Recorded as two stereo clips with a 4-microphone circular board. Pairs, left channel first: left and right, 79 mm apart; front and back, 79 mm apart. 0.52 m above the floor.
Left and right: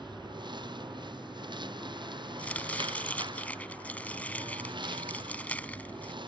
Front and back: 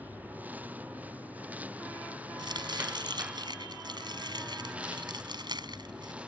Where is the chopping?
160° left.